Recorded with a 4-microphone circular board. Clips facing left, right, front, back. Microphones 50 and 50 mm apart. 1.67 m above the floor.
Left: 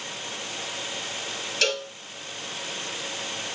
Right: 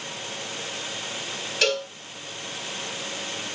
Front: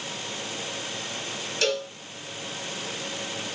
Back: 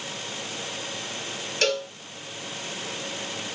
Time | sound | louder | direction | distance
1.6 | a cowbell | right 2 dB, back 1 dB | 165° right | 2 m